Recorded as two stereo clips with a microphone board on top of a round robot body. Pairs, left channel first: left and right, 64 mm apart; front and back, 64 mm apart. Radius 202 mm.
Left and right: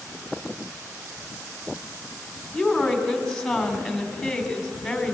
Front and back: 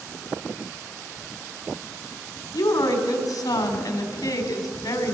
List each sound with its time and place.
2.5 s a woman speaking: 5° left, 4 m